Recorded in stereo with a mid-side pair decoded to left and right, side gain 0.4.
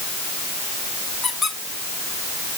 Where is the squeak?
55° left, 5 m.